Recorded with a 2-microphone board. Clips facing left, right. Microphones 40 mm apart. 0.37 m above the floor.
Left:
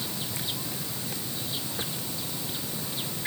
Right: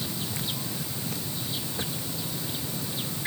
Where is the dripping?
No dripping in this recording.